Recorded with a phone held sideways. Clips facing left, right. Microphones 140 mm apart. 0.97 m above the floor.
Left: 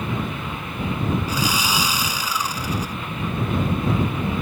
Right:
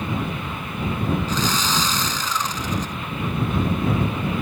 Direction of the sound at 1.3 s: 10° left (ahead or behind).